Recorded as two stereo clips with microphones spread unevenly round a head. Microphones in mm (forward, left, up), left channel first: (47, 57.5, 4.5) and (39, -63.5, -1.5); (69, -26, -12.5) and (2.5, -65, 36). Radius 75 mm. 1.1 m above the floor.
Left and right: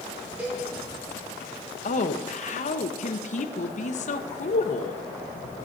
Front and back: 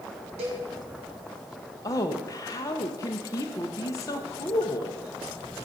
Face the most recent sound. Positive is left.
turn(degrees=70)